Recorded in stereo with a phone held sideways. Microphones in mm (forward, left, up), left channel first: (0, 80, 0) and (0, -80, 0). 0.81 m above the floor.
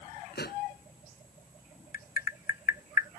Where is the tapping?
60° left (ahead or behind).